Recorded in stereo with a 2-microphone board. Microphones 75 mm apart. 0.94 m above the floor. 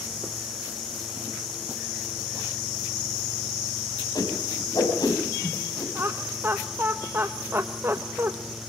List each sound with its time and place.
4.2 s a whoosh: 65° left (ahead or behind), 4.5 m
6.0 s laughter: 30° right (ahead or behind), 1.0 m